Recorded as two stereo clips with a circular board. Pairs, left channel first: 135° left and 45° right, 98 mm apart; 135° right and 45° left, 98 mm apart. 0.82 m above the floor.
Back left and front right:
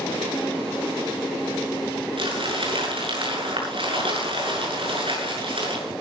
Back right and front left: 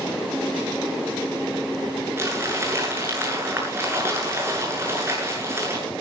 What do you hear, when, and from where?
2.2 s crumpling: 20° right, 7.5 m